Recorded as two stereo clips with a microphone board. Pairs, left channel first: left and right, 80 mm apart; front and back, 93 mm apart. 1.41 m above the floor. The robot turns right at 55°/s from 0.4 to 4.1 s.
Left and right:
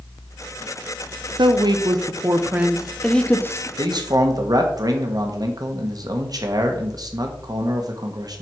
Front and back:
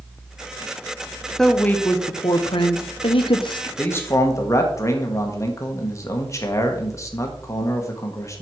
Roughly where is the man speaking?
Right.